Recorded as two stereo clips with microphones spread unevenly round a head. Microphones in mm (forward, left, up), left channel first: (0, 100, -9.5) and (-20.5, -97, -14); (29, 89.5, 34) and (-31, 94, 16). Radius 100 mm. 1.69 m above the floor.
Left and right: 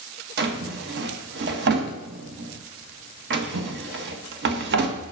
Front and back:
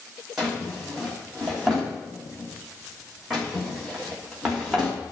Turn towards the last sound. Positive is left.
turn(degrees=-85)